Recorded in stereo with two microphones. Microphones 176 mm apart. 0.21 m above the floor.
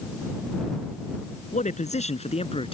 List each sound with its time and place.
1.5 s a man speaking: 45° left (ahead or behind); by 2.8 s 35° left (ahead or behind)